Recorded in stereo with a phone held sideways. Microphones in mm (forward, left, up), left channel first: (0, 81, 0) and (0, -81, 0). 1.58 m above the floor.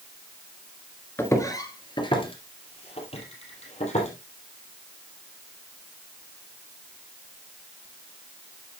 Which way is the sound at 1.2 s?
15° left (ahead or behind).